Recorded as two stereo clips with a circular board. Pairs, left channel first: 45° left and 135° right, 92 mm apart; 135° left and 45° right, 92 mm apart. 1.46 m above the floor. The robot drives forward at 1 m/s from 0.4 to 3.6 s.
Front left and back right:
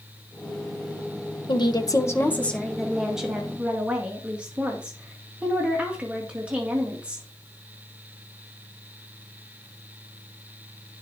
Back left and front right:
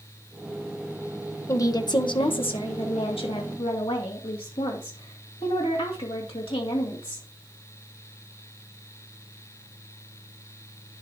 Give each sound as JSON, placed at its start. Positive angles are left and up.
{"t": 1.5, "sound": "a woman speaking", "azimuth_deg": 75, "distance_m": 1.2}